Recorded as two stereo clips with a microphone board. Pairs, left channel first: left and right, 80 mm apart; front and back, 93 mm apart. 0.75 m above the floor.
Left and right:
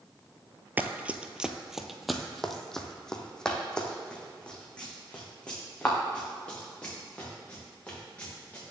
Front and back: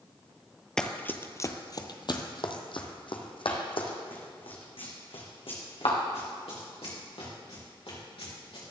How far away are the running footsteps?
About 0.7 m.